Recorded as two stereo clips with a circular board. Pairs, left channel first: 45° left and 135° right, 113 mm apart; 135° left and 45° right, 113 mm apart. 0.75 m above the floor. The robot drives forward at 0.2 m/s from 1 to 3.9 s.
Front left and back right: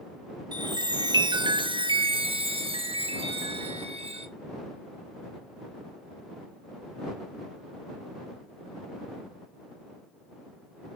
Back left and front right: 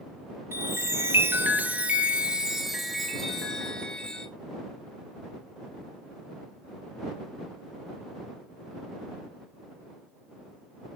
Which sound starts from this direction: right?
A chime, at 0.5 s.